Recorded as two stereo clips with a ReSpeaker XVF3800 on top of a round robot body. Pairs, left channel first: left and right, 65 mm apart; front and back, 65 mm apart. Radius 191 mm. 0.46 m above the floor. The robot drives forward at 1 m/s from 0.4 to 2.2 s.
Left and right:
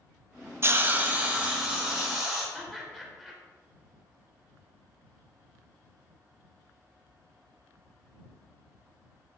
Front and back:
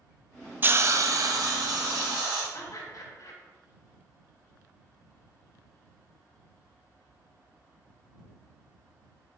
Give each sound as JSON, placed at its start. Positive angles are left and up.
{"t": 0.6, "sound": "a hiss", "azimuth_deg": -125, "distance_m": 0.7}
{"t": 2.5, "sound": "laughter", "azimuth_deg": -5, "distance_m": 2.5}